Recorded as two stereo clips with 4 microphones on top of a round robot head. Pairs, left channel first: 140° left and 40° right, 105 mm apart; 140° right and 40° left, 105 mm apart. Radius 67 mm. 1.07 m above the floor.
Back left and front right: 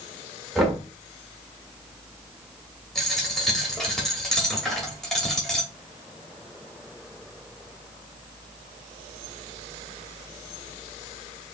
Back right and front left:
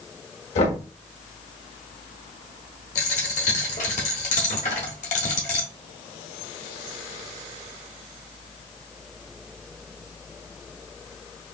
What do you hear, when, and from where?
0.6 s knocking: 125° right, 1.4 m
3.0 s a dropped coin: 130° right, 1.1 m